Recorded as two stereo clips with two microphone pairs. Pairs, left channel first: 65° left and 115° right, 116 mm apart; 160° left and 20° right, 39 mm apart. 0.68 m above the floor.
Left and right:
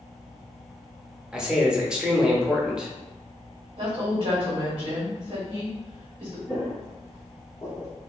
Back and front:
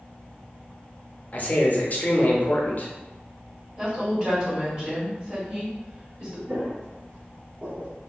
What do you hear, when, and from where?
1.3 s a man speaking: 170° left, 0.6 m
3.8 s a woman speaking: 85° right, 1.4 m
6.5 s footsteps: 20° right, 1.4 m; by 7.9 s 15° left, 0.9 m